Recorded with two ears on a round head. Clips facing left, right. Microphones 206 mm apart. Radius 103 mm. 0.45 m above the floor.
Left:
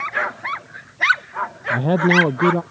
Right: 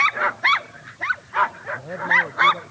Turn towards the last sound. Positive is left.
turn(degrees=80)